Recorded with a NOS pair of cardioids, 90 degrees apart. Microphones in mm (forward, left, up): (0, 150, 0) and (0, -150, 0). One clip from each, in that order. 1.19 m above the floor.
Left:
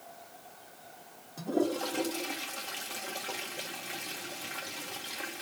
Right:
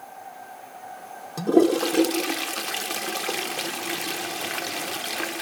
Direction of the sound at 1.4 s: 65° right.